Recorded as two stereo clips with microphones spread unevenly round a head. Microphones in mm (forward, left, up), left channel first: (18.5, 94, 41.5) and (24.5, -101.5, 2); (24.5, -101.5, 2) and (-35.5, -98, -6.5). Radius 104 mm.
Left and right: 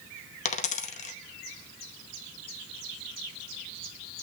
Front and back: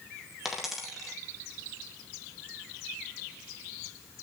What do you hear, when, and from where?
0.5 s a dropped coin: 85° left, 0.8 m